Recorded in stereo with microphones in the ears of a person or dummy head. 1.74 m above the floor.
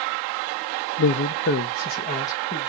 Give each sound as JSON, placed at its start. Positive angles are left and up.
{"t": 1.0, "sound": "a man speaking", "side_deg": 65, "distance_m": 0.6}